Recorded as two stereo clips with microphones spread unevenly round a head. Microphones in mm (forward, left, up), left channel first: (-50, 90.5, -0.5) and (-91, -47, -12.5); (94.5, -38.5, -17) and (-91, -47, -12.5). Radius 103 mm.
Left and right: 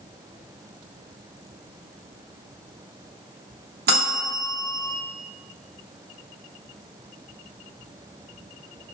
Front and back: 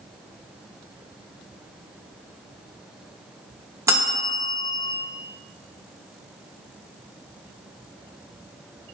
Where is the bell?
100° right, 0.8 m.